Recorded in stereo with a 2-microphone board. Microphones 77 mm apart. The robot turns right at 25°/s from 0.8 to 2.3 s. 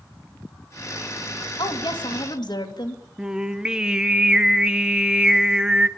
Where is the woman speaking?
80° left, 2.5 m; by 3.0 s 65° left (ahead or behind), 2.5 m.